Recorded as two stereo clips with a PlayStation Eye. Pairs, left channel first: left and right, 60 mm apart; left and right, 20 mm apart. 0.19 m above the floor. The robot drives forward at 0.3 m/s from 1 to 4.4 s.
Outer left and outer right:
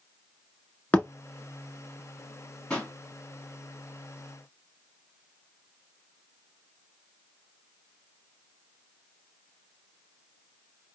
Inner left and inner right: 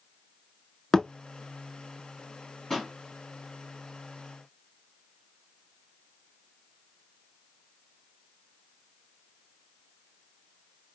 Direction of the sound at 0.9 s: 25° left (ahead or behind).